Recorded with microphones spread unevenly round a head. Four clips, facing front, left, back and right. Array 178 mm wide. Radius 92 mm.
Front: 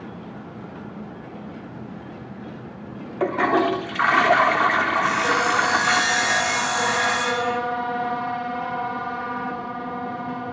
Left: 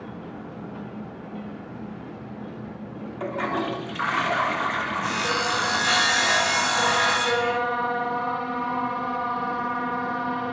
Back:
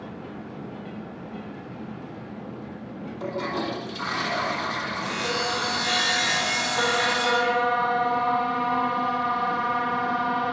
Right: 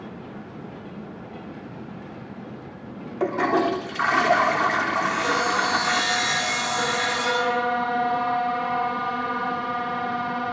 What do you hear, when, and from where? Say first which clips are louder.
3.2 s a toilet flushing: right 6 dB, front 10 dB; 40° right, 4 m
5.0 s sawing: right 3 dB, front 7 dB; 65° left, 8 m